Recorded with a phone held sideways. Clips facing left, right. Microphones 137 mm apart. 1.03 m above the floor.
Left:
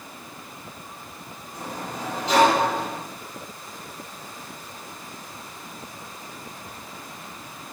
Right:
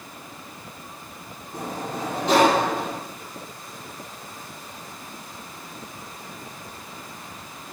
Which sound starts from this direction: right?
A sliding door, at 1.5 s.